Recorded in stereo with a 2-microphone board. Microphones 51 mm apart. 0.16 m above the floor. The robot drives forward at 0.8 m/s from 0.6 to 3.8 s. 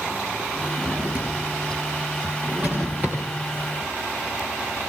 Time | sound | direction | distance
0.8 | a drawer | 40° right (ahead or behind) | 8 m